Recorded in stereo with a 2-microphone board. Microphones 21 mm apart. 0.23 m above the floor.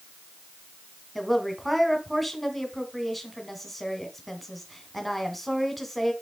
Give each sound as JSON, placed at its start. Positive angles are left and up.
{"t": 1.1, "sound": "a woman speaking", "side_deg": 5, "distance_m": 2.0}